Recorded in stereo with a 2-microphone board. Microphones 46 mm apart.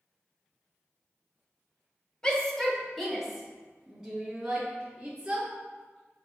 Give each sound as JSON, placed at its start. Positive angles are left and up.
{"t": 2.2, "sound": "a shout", "side_deg": 15, "distance_m": 2.0}